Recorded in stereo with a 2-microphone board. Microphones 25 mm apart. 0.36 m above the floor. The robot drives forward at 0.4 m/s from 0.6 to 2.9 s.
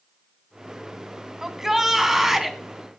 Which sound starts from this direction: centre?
A shout, at 1.4 s.